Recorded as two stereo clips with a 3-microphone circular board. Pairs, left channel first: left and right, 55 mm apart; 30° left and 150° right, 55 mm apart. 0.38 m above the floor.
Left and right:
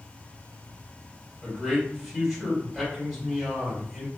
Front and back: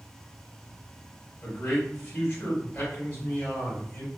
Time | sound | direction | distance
1.4 | a man speaking | 10° right | 1.8 m